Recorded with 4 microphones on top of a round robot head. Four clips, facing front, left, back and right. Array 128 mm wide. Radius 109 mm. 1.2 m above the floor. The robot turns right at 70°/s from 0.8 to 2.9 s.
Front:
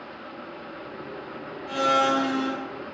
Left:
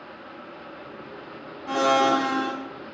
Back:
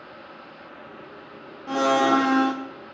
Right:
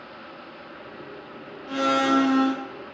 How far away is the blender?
About 0.6 m.